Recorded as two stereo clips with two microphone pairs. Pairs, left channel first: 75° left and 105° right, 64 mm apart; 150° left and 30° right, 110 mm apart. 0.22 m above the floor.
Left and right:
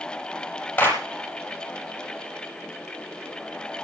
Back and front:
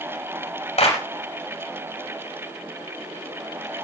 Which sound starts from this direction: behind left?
A clap, at 0.8 s.